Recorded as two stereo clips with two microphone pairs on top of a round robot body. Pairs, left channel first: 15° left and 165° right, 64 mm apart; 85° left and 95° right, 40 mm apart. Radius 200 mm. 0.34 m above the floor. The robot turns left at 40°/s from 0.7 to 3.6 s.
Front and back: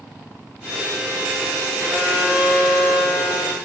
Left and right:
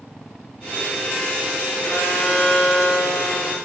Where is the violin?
135° left, 9.5 m; by 3.5 s 65° left, 9.5 m.